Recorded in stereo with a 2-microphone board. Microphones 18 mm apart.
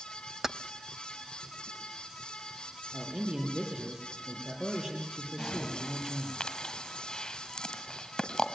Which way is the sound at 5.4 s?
35° left (ahead or behind).